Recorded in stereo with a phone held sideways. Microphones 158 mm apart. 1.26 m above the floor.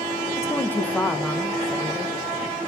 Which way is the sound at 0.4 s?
20° left (ahead or behind).